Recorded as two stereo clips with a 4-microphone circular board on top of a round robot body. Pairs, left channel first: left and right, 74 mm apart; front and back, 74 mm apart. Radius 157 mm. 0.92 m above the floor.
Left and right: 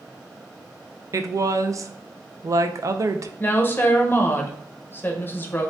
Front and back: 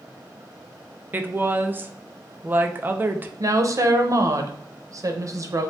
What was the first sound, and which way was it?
A woman speaking, 125° right.